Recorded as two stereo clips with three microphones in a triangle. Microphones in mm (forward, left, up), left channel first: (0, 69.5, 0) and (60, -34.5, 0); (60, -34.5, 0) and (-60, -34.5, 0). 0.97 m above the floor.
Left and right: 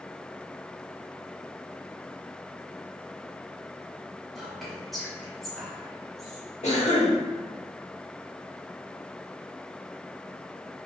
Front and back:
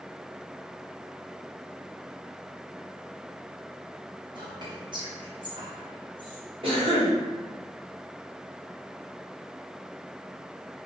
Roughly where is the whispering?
Behind right.